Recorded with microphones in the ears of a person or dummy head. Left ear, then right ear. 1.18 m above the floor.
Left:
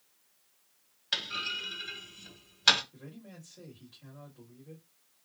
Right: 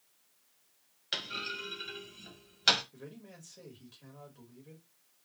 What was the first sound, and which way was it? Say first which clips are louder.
A clunk: left 4 dB; 5° left (ahead or behind).